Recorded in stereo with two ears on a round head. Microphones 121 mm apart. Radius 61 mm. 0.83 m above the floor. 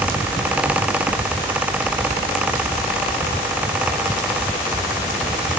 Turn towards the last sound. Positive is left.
No sound to turn to.